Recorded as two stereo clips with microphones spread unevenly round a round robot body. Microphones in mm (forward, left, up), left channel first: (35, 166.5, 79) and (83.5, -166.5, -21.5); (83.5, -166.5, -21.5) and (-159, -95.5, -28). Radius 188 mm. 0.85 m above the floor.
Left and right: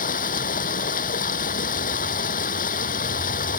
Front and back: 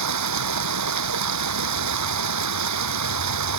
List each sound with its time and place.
0.0 s running water: 165° left